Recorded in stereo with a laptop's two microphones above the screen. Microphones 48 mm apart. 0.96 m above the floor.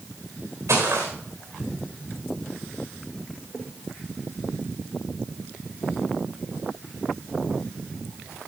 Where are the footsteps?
75° right (ahead or behind), 4 m.